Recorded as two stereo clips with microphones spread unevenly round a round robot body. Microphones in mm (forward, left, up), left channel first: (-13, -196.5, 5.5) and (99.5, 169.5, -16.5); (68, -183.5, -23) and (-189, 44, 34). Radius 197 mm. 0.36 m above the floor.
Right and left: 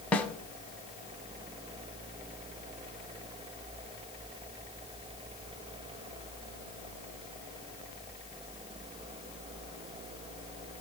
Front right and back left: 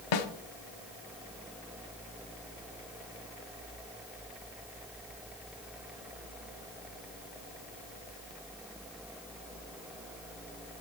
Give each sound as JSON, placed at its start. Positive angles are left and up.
{"t": 0.1, "sound": "a snare drum", "azimuth_deg": -20, "distance_m": 0.7}